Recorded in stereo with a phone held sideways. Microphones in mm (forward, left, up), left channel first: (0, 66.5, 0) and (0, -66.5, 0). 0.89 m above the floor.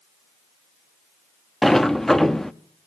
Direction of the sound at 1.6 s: 5° left (ahead or behind).